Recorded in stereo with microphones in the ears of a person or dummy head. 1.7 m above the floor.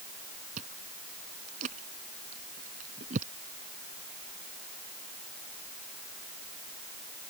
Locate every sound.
0.6 s chewing: 40° right (ahead or behind)